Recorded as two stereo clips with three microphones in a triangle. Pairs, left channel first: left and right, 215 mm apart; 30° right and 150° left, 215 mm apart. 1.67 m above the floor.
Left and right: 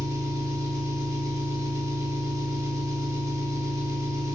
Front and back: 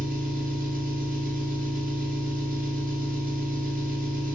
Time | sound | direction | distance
0.0 | an engine running | 165° right | 1.0 m